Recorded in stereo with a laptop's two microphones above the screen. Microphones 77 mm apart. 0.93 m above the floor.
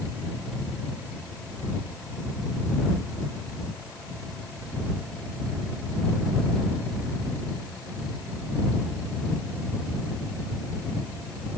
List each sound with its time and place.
Only background noise.